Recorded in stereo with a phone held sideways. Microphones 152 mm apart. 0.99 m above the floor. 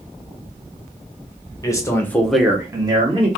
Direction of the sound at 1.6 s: 25° left (ahead or behind).